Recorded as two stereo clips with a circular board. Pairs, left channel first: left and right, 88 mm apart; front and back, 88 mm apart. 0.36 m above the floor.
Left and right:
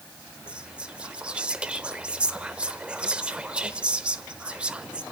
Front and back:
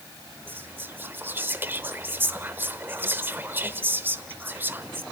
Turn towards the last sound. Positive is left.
turn(degrees=-155)